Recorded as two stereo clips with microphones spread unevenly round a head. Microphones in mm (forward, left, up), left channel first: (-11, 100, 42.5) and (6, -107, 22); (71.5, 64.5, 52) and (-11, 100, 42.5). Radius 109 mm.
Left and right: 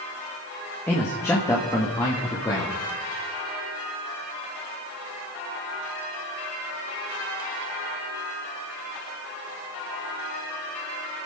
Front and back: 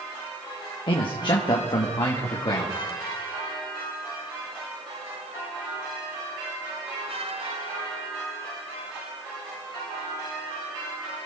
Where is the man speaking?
15° left, 1.7 m; by 2.8 s 20° left, 3 m.